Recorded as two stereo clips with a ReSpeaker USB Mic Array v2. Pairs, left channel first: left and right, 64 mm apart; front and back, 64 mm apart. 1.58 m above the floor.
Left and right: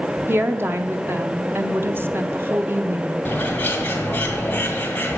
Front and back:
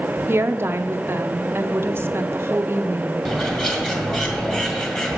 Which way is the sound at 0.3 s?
135° right.